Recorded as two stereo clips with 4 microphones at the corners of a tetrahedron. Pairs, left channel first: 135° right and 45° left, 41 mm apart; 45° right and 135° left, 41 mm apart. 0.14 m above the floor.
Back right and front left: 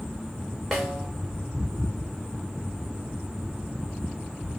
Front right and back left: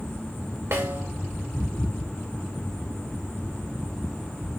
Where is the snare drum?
140° left, 2.5 m.